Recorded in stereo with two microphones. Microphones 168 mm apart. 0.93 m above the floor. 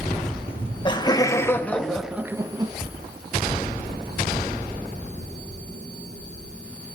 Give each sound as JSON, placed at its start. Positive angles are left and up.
{"t": 0.5, "sound": "laughter", "side_deg": 35, "distance_m": 1.6}